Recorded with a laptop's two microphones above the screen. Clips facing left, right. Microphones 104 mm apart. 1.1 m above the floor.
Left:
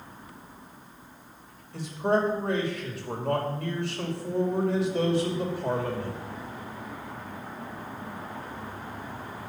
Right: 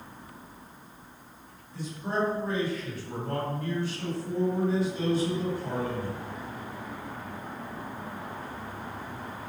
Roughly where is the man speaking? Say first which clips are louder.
Left 6 dB; left.